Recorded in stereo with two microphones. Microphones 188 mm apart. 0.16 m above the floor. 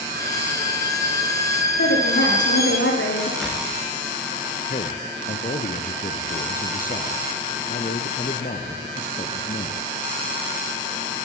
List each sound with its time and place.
0.1 s a violin: 55° right (ahead or behind), 8.5 m
1.8 s a woman speaking: 85° left, 8.5 m
3.4 s a door slam: 5° right (ahead or behind), 8 m
4.7 s a man speaking: 45° left (ahead or behind), 2.5 m